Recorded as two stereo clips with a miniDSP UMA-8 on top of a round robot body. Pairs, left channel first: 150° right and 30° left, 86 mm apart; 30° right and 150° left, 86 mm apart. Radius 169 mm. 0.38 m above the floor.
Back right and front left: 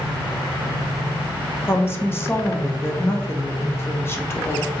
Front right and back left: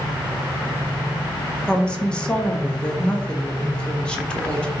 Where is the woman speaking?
105° right, 0.9 m.